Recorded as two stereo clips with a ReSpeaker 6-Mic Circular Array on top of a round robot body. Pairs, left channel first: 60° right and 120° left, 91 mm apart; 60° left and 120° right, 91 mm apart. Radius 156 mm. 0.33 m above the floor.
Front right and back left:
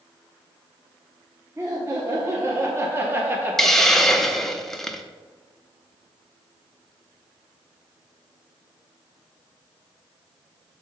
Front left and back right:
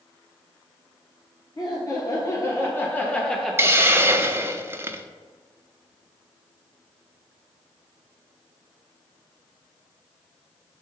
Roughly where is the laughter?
Left.